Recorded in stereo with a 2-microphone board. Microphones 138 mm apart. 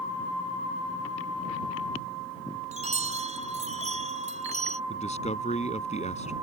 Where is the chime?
55° right (ahead or behind).